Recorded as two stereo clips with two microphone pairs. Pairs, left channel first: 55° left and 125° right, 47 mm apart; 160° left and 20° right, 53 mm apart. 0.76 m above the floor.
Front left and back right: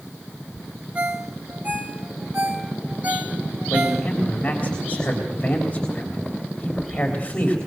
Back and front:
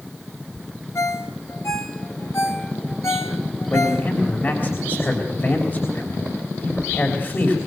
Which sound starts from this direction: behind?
A ringtone, at 0.9 s.